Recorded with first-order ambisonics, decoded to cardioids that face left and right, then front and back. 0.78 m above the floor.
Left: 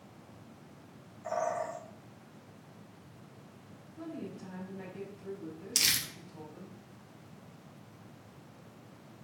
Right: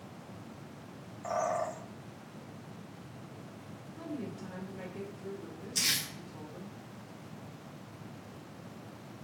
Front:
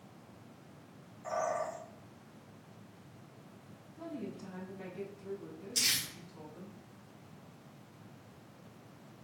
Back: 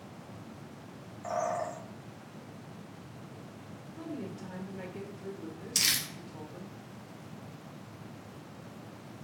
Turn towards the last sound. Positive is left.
turn(degrees=135)